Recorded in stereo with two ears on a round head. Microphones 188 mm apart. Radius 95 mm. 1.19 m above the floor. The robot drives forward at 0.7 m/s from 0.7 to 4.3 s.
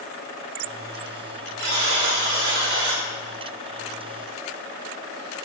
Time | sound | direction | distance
1.6 | a buzzer | 65° right (ahead or behind) | 7.5 m